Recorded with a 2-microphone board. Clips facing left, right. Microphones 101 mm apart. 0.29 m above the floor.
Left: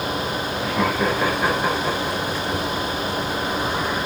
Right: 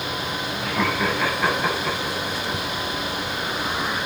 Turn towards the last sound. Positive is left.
turn(degrees=20)  # may be behind; listen again after turning